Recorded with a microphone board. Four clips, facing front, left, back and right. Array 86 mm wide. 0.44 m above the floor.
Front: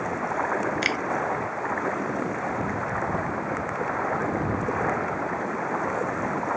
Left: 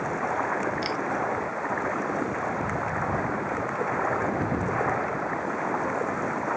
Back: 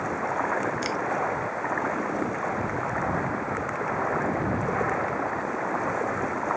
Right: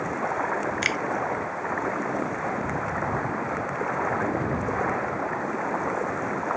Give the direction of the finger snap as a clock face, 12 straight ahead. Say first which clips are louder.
Right 1 dB, front 1 dB; 2 o'clock.